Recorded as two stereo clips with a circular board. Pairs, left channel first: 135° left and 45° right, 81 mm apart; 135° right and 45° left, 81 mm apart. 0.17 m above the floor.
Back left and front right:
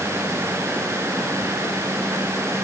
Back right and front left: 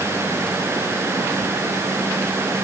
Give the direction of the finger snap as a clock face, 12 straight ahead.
No finger snap in this recording.